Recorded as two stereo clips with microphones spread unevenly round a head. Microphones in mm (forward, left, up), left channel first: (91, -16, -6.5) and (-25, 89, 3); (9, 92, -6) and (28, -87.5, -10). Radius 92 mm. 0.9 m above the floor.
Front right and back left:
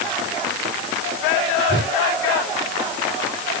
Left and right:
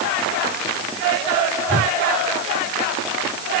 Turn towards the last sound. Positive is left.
turn(degrees=125)